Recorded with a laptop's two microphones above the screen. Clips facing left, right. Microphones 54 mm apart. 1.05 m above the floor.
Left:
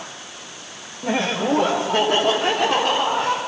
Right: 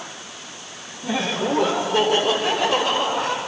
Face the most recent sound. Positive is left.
turn(degrees=55)  # may be behind; listen again after turning